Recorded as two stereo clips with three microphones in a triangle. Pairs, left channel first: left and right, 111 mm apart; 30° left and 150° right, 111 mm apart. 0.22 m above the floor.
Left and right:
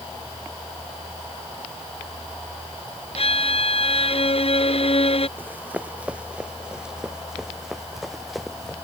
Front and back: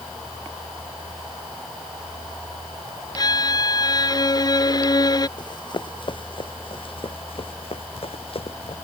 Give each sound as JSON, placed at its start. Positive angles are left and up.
{"t": 3.1, "sound": "a violin", "azimuth_deg": 80}
{"t": 5.4, "sound": "running footsteps", "azimuth_deg": -15}